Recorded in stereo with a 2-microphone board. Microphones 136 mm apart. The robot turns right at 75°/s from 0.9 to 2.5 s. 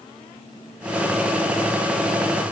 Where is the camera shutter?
No camera shutter in this recording.